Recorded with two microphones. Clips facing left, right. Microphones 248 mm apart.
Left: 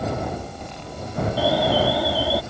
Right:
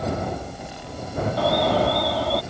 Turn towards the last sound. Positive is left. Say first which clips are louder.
# left 1 dB
turn(degrees=10)  # may be behind; listen again after turning